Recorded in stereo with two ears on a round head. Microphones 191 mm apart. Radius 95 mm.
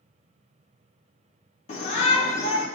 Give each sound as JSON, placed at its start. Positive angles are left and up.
{"t": 1.7, "sound": "a shout", "side_deg": 35, "distance_m": 0.9}